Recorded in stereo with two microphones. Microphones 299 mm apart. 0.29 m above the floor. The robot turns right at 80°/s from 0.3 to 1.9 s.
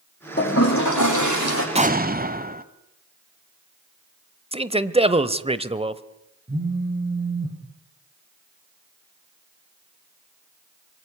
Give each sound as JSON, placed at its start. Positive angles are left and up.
{"t": 0.4, "sound": "a toilet flushing", "azimuth_deg": 35, "distance_m": 7.0}
{"t": 1.8, "sound": "an explosion", "side_deg": -20, "distance_m": 1.2}
{"t": 4.5, "sound": "a man speaking", "side_deg": -20, "distance_m": 1.0}
{"t": 6.5, "sound": "a phone buzzing", "side_deg": -30, "distance_m": 5.5}